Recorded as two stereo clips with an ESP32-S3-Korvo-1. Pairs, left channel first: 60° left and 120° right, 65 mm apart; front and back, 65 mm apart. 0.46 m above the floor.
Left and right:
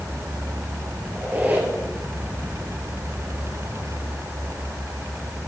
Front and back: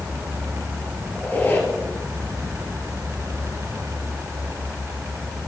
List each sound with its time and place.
1.1 s a squeak: 60° right, 1.8 m